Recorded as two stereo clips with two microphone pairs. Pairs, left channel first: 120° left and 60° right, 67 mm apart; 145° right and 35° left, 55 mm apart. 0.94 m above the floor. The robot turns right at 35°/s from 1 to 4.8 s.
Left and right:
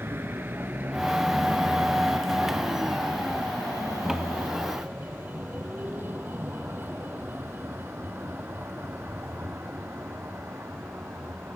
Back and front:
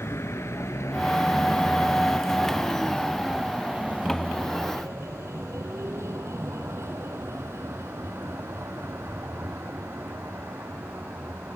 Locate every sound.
0.0 s a vehicle: 115° right; by 11.6 s 5° right